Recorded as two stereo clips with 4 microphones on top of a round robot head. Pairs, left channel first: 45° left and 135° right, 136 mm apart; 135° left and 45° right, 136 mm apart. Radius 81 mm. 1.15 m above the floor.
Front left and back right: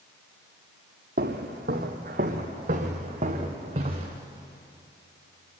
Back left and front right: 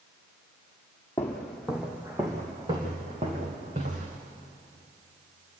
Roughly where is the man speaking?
No man speaking in this recording.